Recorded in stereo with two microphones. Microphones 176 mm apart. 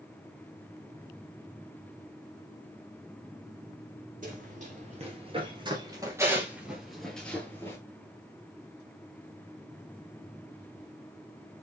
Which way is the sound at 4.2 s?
45° right (ahead or behind).